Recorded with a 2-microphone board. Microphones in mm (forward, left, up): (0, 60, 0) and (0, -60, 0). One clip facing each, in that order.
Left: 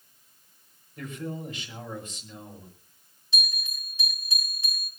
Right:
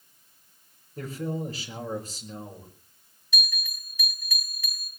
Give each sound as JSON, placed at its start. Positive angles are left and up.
{"t": 1.0, "sound": "a man speaking", "side_deg": -35, "distance_m": 5.5}
{"t": 3.3, "sound": "a bell", "side_deg": 25, "distance_m": 7.0}